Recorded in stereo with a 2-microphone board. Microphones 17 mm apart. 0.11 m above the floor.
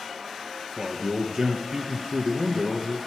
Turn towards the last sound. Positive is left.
turn(degrees=-50)  # may be behind; listen again after turning